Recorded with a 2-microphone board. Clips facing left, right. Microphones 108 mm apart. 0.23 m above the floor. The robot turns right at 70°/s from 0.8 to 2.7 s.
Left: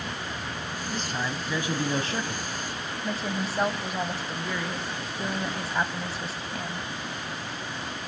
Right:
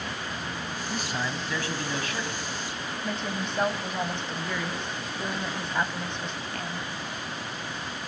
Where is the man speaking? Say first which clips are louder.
Even; 25° right, 1.2 m; by 2.5 s 85° left, 1.2 m.